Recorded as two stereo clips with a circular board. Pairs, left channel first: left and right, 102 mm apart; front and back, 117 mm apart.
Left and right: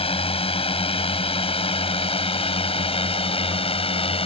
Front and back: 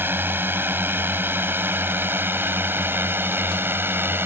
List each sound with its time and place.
0.0 s a drone: 110° left